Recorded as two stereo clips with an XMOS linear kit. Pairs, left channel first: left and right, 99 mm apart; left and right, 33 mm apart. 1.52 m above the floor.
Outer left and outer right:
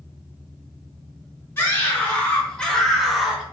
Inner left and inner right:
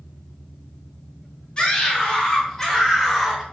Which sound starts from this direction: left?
A scream, at 1.6 s.